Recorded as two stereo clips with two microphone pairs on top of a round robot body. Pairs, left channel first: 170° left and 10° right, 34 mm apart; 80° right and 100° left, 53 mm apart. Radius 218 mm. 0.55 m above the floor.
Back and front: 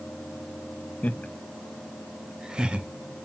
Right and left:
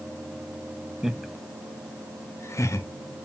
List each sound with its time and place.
1.0 s laughter: 170° left, 0.9 m; by 2.9 s 75° right, 1.2 m